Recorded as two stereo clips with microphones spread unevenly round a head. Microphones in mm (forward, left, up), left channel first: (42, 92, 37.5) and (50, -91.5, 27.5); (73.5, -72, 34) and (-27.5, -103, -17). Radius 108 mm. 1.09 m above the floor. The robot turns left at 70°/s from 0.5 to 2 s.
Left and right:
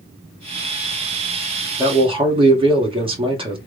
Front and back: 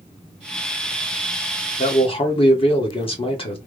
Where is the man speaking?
15° right, 1.6 m; by 3.6 s 30° right, 1.6 m.